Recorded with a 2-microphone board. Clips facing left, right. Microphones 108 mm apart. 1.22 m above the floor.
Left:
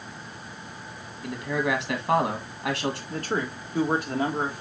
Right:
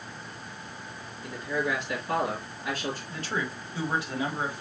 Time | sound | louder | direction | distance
1.2 | a man speaking | left 3 dB | 75° left (ahead or behind) | 2 m
3.1 | a man speaking | left 4 dB | 45° left (ahead or behind) | 1.6 m